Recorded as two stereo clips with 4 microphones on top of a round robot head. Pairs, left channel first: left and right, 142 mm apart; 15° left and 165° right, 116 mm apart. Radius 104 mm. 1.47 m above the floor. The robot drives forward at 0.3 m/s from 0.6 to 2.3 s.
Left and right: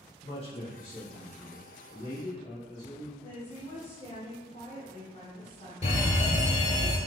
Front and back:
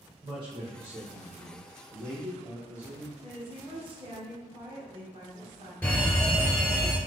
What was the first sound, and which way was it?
A man speaking, 145° left.